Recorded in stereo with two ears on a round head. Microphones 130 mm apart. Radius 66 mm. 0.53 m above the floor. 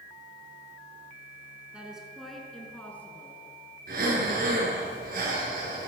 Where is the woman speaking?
5° right (ahead or behind), 5 m; by 3.4 s 15° left (ahead or behind), 6 m.